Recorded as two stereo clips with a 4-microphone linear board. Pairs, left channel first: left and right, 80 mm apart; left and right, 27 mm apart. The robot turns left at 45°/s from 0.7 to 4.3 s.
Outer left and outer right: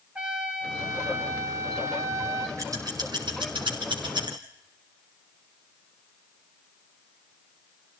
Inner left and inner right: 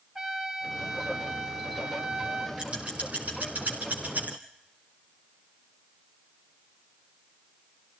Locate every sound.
0.1 s a trumpet: 15° right, 1.9 m; by 2.5 s 95° right, 1.9 m
2.6 s scissors: 40° right (ahead or behind), 4.5 m; by 4.3 s 65° right (ahead or behind), 4.5 m